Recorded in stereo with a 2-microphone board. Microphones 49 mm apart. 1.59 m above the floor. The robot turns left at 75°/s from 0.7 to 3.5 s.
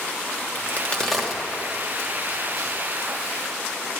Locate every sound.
0.6 s a crack: 40° left (ahead or behind), 1.2 m; by 2.7 s 65° right (ahead or behind), 1.2 m